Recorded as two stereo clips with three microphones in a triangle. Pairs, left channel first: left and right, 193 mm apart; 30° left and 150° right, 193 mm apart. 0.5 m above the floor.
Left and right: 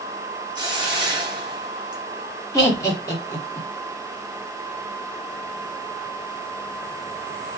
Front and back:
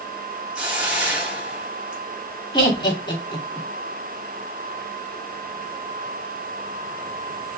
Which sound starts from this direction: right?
A hiss, at 0.6 s.